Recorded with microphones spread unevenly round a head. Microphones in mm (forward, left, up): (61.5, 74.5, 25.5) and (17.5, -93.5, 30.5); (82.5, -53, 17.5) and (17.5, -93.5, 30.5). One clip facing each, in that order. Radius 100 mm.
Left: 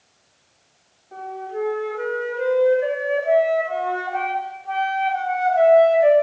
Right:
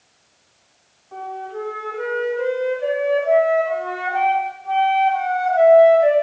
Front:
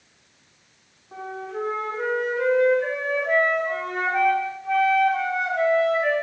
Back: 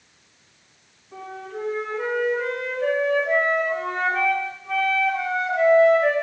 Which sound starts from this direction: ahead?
A flute, at 1.1 s.